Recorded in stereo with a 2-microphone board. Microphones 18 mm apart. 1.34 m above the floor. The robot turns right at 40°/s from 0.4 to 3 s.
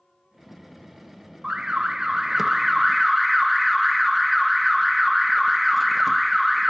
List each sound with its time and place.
1.4 s an alarm: 65° right, 0.8 m; by 6.7 s straight ahead, 0.8 m